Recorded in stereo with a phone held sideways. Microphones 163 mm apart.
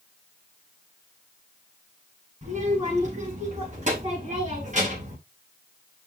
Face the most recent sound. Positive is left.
turn(degrees=-50)  # may be behind; listen again after turning